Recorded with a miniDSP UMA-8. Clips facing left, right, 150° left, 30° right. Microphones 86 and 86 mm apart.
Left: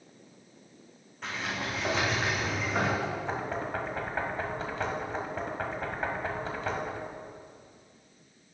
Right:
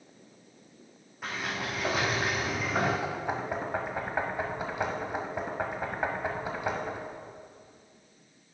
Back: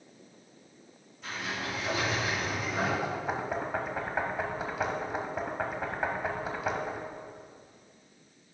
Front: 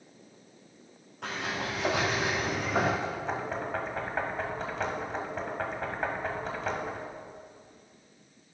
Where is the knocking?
140° right, 1.2 m.